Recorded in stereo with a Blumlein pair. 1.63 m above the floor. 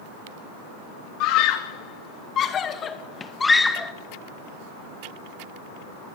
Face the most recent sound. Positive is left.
turn(degrees=5)